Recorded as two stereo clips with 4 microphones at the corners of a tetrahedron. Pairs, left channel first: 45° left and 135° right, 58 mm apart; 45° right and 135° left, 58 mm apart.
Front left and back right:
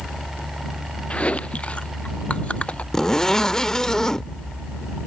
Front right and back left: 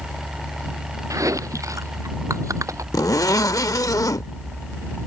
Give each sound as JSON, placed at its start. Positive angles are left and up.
{"t": 1.1, "sound": "chewing", "azimuth_deg": 115}
{"t": 2.9, "sound": "a zipper", "azimuth_deg": -35}